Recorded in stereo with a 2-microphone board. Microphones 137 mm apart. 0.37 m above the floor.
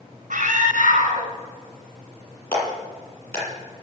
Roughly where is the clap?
Centre.